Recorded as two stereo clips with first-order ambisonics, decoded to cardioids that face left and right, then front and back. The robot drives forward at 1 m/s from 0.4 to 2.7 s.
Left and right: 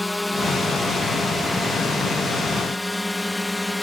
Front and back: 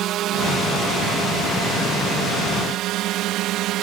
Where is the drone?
175° left.